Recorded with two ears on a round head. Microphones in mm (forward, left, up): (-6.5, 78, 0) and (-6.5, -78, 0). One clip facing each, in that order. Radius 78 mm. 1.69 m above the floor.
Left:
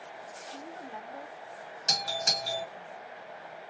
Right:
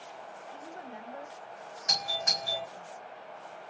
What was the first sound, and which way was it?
A woman speaking, 10° right (ahead or behind).